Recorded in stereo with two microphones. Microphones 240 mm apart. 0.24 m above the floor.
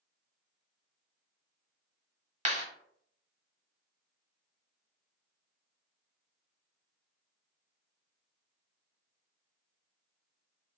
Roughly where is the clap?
Right.